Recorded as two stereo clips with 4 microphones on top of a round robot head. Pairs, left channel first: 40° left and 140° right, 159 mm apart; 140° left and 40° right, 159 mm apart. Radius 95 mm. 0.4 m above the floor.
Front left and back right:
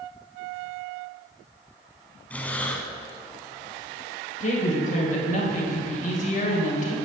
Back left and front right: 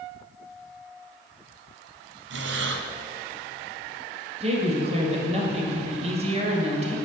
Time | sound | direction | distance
2.3 | breathing | 40° right | 0.9 m
4.4 | a woman speaking | 5° left | 2.5 m